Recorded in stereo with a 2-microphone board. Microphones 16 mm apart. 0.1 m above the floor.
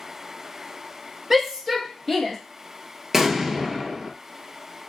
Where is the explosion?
25° right (ahead or behind), 0.7 m.